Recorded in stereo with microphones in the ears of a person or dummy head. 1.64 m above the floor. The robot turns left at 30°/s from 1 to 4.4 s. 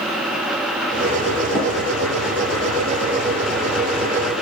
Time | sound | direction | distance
1.6 | tapping | 30° left (ahead or behind) | 1.0 m